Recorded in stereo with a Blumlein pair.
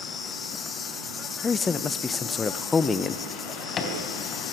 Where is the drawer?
25° left, 3.5 m.